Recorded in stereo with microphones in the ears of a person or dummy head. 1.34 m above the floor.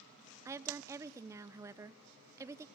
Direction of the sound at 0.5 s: 20° right (ahead or behind).